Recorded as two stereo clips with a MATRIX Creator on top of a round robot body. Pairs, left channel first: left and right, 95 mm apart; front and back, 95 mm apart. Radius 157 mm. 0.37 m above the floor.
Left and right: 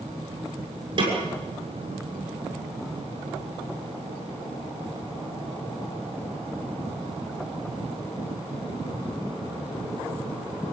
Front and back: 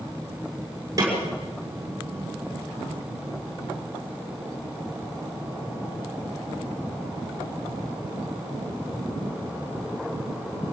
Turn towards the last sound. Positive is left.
turn(degrees=-125)